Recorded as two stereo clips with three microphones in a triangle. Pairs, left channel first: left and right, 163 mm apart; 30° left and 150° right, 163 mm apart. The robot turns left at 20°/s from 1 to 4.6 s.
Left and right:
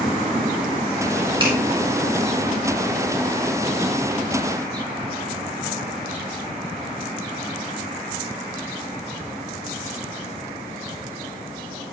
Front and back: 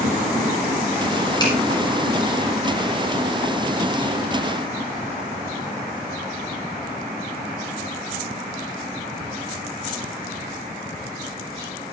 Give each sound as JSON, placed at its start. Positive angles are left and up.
{"t": 1.4, "sound": "a finger snap", "azimuth_deg": -35, "distance_m": 6.0}